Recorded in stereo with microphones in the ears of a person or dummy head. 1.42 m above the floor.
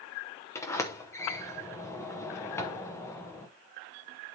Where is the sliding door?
20° left (ahead or behind), 0.8 m.